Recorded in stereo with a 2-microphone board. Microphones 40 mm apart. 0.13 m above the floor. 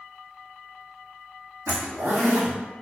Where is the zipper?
70° right (ahead or behind), 1.8 m.